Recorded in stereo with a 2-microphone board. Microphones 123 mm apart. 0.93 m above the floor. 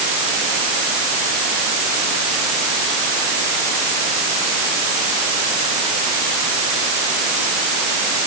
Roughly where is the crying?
I don't hear crying.